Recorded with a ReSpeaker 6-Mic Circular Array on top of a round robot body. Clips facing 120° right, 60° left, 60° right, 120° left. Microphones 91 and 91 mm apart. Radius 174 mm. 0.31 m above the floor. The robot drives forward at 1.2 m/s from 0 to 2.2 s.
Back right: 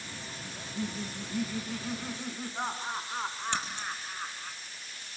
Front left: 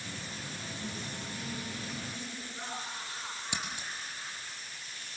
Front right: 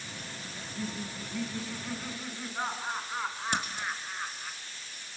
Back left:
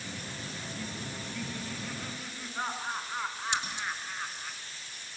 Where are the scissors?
20° right, 4.5 m.